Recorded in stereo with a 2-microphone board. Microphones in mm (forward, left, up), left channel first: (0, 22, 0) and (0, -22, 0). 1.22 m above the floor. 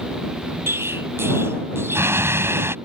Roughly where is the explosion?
Right.